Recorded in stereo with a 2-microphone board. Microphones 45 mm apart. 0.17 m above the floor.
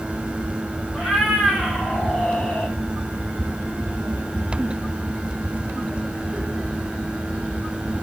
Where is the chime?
I don't hear a chime.